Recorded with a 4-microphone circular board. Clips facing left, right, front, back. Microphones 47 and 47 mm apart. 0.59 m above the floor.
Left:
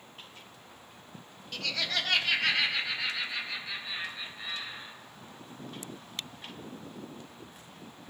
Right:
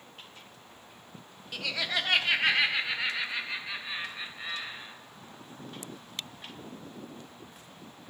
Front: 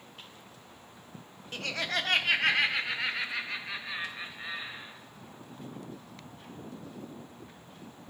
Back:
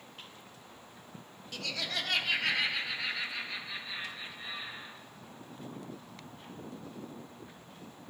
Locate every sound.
1.5 s laughter: 15° right, 0.7 m; by 4.9 s 30° right, 2.5 m